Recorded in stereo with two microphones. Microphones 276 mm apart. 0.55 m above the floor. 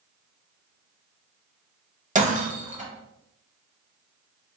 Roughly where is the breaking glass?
Right.